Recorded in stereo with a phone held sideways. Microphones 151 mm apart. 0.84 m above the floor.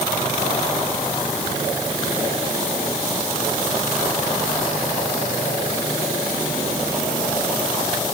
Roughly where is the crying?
I don't hear crying.